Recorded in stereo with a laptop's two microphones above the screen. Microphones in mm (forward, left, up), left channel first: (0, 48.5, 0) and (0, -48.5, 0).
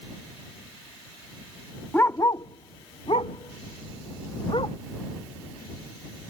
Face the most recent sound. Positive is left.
turn(degrees=60)  # may be behind; listen again after turning